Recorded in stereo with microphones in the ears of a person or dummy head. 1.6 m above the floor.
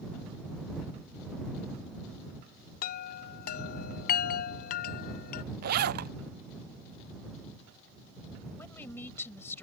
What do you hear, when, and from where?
2.8 s a chime: 50° left (ahead or behind)
5.6 s a zipper: 60° right (ahead or behind)
8.6 s a woman speaking: 20° left (ahead or behind)